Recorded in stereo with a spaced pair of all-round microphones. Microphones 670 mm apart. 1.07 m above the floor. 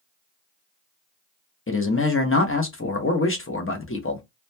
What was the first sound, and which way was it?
A man speaking, 20° left (ahead or behind).